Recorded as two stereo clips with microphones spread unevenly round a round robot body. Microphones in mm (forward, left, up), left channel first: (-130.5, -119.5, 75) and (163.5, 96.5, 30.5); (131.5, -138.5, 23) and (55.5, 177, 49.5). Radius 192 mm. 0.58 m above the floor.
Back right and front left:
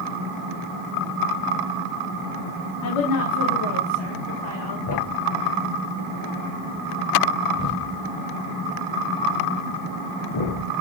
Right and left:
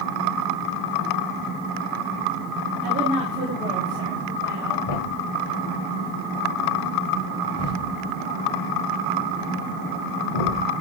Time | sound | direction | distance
2.8 | a woman speaking | 175° left | 1.6 m
4.9 | a thud | 105° right | 0.8 m